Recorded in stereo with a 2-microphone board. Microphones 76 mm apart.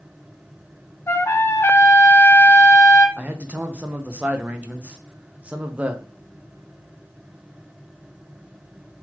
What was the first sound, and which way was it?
A trumpet, 35° left (ahead or behind).